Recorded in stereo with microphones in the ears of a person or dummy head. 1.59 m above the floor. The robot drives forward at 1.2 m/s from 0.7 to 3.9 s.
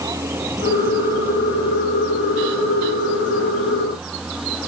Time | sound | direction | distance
0.0 | a vehicle | 10° right (ahead or behind) | ?